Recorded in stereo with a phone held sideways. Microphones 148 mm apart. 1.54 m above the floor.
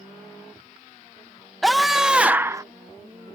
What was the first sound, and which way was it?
A scream, centre (ahead or behind).